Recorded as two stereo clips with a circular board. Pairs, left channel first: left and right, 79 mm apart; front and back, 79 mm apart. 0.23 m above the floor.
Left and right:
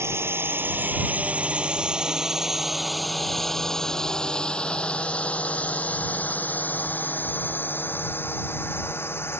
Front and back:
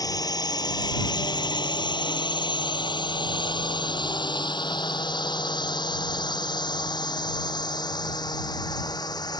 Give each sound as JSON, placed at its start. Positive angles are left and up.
{"t": 0.0, "sound": "a drone", "azimuth_deg": -35}